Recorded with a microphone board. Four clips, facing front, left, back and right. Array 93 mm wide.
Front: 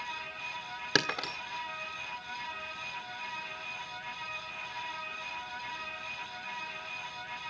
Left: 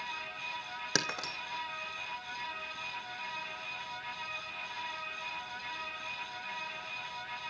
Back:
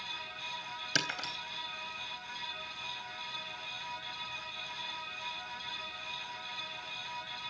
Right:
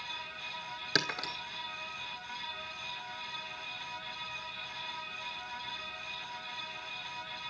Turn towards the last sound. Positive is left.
turn(degrees=20)